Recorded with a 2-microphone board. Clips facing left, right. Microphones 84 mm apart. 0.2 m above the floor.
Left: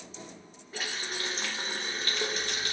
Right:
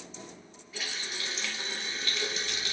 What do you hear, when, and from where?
0.7 s a running tap: 40° left (ahead or behind), 1.0 m